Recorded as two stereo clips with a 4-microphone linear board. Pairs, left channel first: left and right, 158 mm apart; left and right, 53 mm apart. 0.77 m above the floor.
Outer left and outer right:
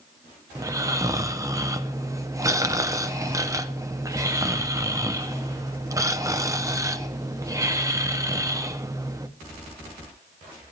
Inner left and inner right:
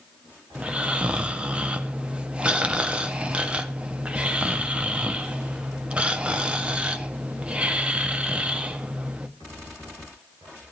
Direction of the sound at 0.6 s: 20° right (ahead or behind).